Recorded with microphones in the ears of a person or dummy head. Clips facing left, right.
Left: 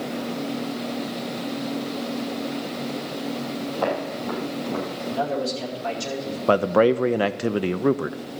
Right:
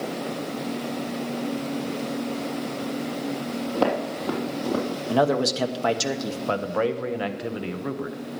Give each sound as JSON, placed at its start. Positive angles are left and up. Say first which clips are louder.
{"t": 3.8, "sound": "footsteps", "louder": "right 3 dB", "side_deg": -55, "distance_m": 3.0}
{"t": 5.1, "sound": "a man speaking", "louder": "right 5 dB", "side_deg": -85, "distance_m": 1.0}
{"t": 6.5, "sound": "a man speaking", "louder": "left 8 dB", "side_deg": 55, "distance_m": 0.5}